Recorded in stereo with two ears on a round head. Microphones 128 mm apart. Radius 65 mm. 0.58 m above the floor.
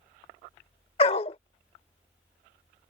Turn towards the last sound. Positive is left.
turn(degrees=40)  # may be behind; listen again after turning